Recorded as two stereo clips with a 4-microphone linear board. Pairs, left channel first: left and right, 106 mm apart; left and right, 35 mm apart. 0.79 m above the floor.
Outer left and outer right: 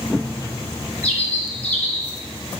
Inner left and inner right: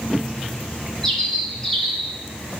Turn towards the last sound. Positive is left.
turn(degrees=10)  # may be behind; listen again after turning